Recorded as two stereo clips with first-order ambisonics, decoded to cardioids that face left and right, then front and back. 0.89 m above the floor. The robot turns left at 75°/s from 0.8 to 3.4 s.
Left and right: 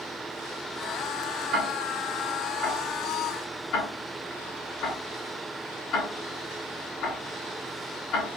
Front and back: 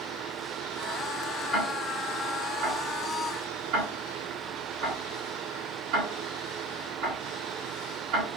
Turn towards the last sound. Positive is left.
turn(degrees=145)